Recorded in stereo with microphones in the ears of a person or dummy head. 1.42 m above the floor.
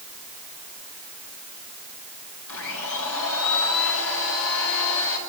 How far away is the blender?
About 7 m.